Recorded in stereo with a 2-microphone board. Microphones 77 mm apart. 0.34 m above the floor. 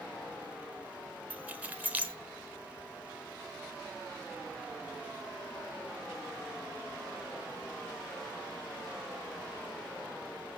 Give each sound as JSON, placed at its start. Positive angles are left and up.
{"t": 1.3, "sound": "keys jangling", "side_deg": -20, "distance_m": 0.5}